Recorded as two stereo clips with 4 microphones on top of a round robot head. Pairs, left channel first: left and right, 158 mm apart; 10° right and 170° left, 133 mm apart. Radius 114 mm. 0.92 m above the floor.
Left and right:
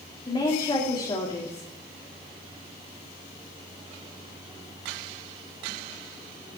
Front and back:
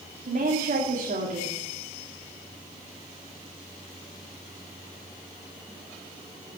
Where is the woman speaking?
150° left, 2.5 m.